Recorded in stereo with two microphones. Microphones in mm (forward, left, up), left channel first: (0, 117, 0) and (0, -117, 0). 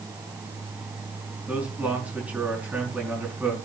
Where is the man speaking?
5° right (ahead or behind), 5 m.